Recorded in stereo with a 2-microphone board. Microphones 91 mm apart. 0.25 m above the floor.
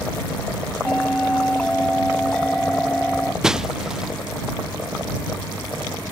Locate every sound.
0.8 s a bell: 15° left (ahead or behind)
3.4 s breaking glass: 5° right (ahead or behind)